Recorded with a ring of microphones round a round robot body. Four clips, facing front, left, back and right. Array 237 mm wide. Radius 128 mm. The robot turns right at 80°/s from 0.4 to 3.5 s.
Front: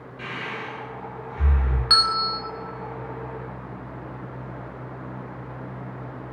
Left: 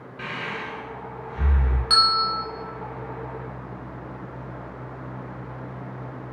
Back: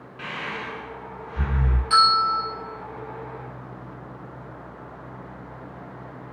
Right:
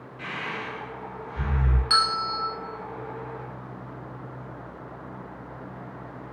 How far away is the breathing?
About 1.0 m.